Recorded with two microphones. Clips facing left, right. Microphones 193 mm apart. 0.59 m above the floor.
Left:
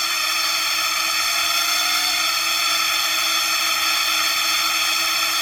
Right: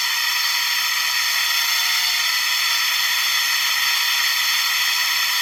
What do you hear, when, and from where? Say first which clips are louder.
0.0 s a drone: left 2 dB; 55° left (ahead or behind)